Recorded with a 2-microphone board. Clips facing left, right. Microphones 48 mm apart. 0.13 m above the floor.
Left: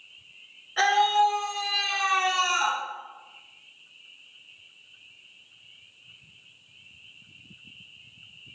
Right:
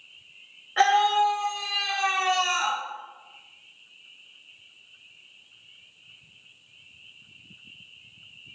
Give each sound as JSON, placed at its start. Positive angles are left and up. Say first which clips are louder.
{"t": 0.8, "sound": "a scream", "louder": "right 1 dB", "side_deg": -25, "distance_m": 1.7}